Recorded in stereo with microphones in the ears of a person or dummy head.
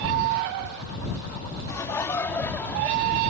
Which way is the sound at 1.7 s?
20° left (ahead or behind).